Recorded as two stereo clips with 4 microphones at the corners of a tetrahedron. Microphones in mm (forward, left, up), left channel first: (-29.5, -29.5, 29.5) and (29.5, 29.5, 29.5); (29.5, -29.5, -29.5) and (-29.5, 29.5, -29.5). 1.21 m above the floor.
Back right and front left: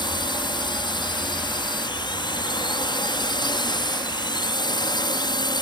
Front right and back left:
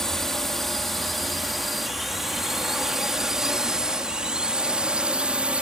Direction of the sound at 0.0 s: 130° right.